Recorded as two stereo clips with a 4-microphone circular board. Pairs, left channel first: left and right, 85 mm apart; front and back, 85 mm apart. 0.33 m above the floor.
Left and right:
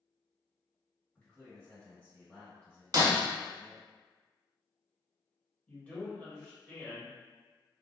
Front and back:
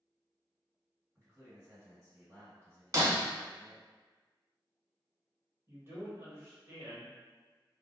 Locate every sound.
1.1 s a man speaking: 150° left, 1.7 m
2.9 s breaking glass: 130° right, 0.7 m
5.7 s a man speaking: 150° left, 1.0 m